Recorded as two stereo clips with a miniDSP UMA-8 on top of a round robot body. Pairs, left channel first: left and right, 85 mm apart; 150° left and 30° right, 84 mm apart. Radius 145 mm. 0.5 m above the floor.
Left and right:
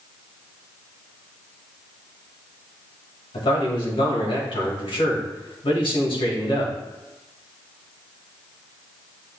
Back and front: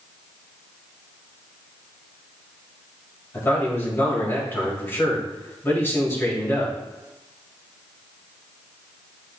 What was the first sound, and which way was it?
A man speaking, 90° left.